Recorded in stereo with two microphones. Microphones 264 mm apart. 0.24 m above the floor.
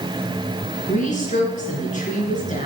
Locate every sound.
0.9 s a woman speaking: 30° left (ahead or behind), 3.5 m